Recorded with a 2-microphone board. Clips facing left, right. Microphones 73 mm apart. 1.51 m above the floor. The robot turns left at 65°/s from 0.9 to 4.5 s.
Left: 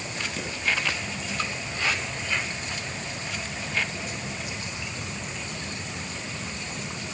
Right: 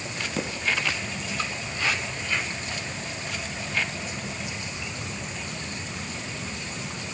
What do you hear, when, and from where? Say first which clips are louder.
0.4 s footsteps: right 3 dB; 35° right (ahead or behind), 2.5 m